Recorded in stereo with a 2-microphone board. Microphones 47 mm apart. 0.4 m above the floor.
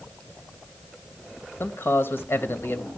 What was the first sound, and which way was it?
A man speaking, 55° left (ahead or behind).